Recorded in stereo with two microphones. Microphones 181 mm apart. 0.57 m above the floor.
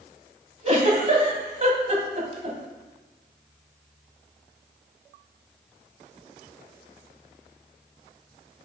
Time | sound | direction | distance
0.6 | a giggle | 40° right (ahead or behind) | 1.3 m